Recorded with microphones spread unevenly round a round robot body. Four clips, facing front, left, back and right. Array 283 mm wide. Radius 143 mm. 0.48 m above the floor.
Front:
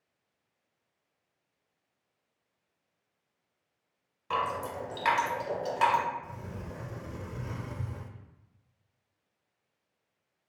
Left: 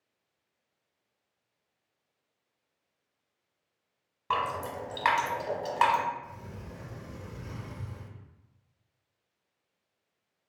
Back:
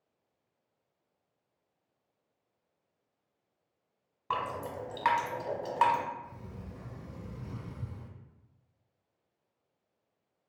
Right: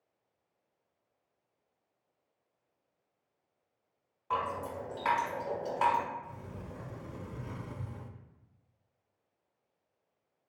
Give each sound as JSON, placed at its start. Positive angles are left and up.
{"t": 4.3, "sound": "dripping", "azimuth_deg": 120, "distance_m": 1.0}
{"t": 6.2, "sound": "a sliding door", "azimuth_deg": 0, "distance_m": 0.5}